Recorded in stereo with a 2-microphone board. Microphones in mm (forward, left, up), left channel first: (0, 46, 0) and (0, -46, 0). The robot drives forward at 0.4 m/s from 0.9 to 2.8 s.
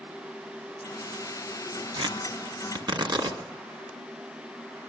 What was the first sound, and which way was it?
Tearing paper, 65° right (ahead or behind).